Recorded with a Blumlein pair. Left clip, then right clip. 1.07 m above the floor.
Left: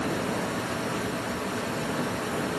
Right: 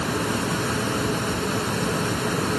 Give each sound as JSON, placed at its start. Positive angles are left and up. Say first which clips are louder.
{"t": 0.0, "sound": "a fan", "louder": "right 4 dB", "azimuth_deg": -65}